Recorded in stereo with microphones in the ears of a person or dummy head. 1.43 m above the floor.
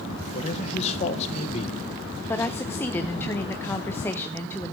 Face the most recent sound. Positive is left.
turn(degrees=10)  # may be behind; listen again after turning